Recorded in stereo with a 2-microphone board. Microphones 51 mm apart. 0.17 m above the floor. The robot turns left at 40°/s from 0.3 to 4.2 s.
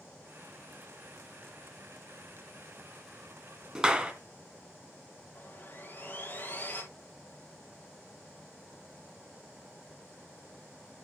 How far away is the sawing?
About 6 m.